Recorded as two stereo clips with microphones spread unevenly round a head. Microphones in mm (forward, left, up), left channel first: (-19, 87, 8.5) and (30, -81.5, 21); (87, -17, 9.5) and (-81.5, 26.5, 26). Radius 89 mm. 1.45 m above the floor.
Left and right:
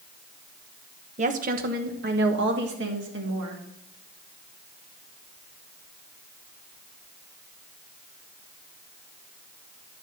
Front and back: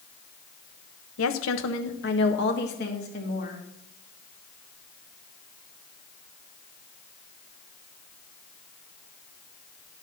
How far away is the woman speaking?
About 1.0 m.